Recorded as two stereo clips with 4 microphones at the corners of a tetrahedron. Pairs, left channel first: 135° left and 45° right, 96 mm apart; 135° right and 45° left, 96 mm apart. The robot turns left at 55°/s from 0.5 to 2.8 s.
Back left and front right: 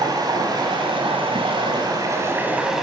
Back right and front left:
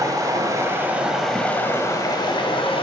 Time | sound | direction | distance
0.0 | running water | 5° right | 1.4 m